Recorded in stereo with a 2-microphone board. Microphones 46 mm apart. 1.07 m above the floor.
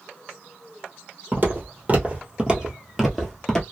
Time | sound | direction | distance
1.3 | footsteps | 40° right (ahead or behind) | 1.4 m